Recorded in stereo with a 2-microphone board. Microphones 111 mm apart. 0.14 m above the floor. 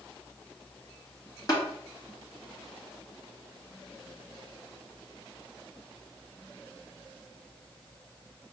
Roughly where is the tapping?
Left.